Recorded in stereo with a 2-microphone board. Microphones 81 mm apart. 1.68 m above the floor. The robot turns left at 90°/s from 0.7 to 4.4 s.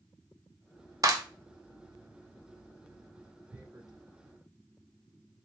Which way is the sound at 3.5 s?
20° right (ahead or behind).